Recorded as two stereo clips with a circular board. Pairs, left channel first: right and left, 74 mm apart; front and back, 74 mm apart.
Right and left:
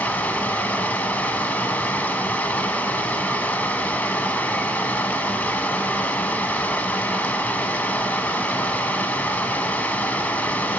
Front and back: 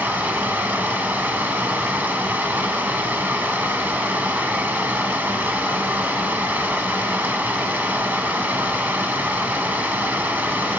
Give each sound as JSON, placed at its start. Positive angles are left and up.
{"t": 0.0, "sound": "running water", "azimuth_deg": -135, "distance_m": 0.8}